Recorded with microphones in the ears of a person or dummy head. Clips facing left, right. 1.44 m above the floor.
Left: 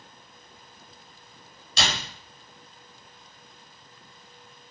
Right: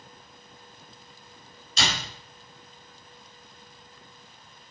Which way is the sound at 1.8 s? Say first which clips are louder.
Left 1 dB; 60° left (ahead or behind).